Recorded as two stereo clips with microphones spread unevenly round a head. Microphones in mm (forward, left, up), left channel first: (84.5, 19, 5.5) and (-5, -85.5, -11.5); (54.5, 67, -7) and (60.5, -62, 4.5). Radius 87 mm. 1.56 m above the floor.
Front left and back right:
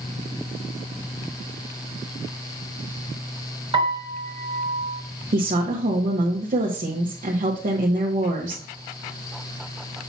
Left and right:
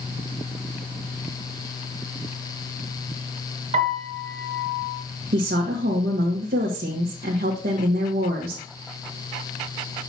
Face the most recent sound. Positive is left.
turn(degrees=-95)